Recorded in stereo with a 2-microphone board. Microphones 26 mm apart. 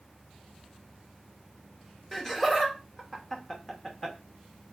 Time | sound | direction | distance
2.1 | laughter | 15° left (ahead or behind) | 0.8 m